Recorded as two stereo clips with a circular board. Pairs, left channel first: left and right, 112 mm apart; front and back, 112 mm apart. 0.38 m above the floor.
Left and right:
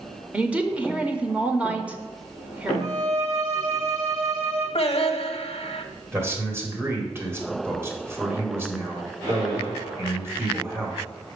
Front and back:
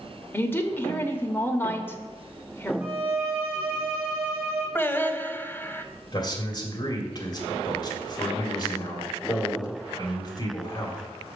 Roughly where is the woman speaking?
Ahead right.